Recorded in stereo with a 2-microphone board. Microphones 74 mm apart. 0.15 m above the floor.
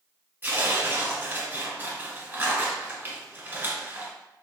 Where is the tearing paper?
20° right (ahead or behind), 1.4 m.